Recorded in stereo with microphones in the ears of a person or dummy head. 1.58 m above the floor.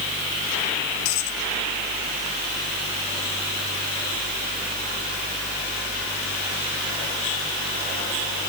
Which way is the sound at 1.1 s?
80° left.